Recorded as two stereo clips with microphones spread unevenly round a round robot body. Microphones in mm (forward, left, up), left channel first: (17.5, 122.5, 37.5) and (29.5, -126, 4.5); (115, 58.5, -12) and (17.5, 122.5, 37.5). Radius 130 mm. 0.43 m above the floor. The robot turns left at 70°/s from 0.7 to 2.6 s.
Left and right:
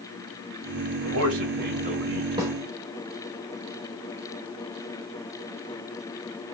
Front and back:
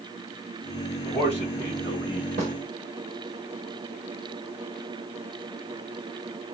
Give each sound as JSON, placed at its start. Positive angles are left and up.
{"t": 1.0, "sound": "a man speaking", "azimuth_deg": -85, "distance_m": 2.0}
{"t": 2.4, "sound": "a snare drum", "azimuth_deg": -150, "distance_m": 1.9}